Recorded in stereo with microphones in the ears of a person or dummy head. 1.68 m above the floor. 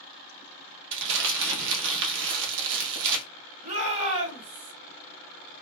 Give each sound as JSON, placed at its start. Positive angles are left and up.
{"t": 0.9, "sound": "crumpling", "side_deg": -70, "distance_m": 0.9}
{"t": 3.6, "sound": "a shout", "side_deg": -35, "distance_m": 1.1}